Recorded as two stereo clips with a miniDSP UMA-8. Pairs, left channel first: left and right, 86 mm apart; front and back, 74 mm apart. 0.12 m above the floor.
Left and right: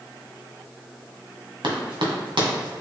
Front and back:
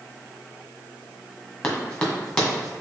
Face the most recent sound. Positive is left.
turn(degrees=-85)